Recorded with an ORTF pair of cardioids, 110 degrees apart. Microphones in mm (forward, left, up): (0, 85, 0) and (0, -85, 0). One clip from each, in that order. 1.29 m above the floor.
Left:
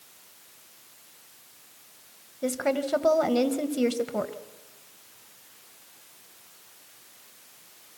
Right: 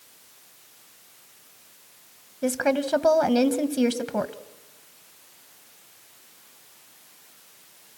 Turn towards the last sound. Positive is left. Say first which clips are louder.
# right 3 dB
turn(degrees=-15)